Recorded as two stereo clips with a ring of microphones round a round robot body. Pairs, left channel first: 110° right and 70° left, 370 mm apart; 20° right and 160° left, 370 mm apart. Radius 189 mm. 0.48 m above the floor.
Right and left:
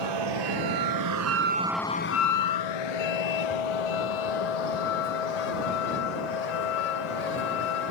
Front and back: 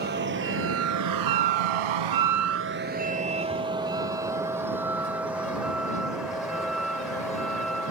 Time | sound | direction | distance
0.0 | a vehicle | 90° left | ?